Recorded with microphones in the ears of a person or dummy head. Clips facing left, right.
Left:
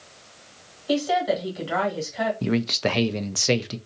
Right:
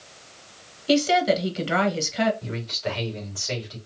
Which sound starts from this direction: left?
A man speaking, at 2.4 s.